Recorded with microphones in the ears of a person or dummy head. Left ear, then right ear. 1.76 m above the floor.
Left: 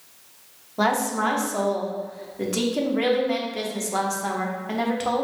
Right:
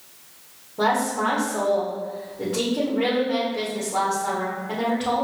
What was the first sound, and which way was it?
A woman speaking, 70° left (ahead or behind).